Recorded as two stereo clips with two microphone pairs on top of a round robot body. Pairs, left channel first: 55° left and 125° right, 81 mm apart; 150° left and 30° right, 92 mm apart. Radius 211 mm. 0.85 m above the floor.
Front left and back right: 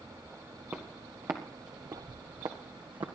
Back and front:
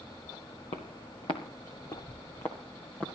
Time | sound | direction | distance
0.7 | footsteps | 165° left | 1.5 m